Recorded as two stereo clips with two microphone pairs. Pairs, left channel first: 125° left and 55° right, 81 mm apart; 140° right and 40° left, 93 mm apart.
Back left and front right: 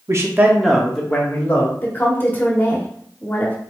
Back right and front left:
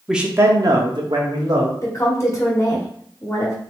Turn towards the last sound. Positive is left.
turn(degrees=180)